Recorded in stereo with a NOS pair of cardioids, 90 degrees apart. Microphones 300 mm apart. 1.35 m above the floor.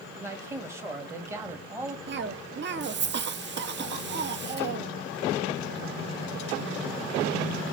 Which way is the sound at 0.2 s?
10° right.